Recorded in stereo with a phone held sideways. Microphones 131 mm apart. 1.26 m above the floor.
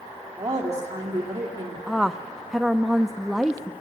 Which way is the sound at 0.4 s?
30° right (ahead or behind).